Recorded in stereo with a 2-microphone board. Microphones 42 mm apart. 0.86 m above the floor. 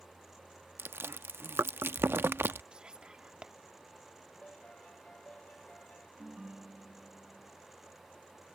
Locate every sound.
0.8 s chewing: 80° right
2.7 s whispering: 25° right (ahead or behind)
4.4 s a piano: 40° left (ahead or behind)
6.2 s a ringtone: 20° right (ahead or behind)